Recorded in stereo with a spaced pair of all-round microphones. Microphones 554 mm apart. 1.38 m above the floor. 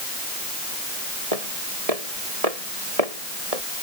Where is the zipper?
I don't hear a zipper.